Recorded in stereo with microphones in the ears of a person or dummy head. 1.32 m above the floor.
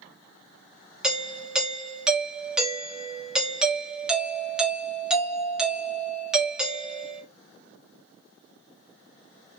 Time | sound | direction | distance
1.0 | a doorbell | 5° right (ahead or behind) | 1.0 m